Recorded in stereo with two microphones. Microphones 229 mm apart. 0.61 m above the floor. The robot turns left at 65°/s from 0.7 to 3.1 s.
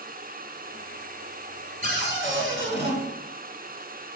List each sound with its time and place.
1.8 s a cupboard door: 45° right, 1.7 m; by 3.0 s 120° right, 1.7 m